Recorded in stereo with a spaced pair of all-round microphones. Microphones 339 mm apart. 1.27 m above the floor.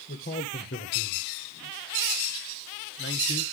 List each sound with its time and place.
0.1 s a man speaking: 35° left (ahead or behind), 1.6 m; by 3.4 s 30° left (ahead or behind), 1.5 m